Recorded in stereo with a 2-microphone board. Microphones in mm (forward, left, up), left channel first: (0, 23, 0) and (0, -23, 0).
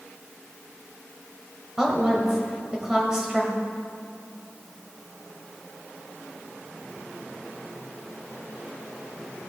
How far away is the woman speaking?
About 1.3 m.